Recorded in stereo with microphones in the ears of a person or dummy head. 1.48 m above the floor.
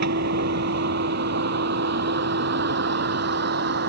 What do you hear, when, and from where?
0.0 s a vehicle: 70° right (ahead or behind); by 3.9 s 65° right (ahead or behind)